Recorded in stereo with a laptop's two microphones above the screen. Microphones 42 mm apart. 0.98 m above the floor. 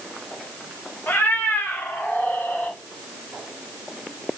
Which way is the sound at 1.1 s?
55° left (ahead or behind).